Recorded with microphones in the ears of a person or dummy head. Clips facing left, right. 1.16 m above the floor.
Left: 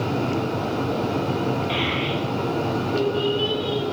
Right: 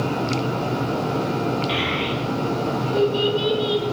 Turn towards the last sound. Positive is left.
turn(degrees=-45)  # may be behind; listen again after turning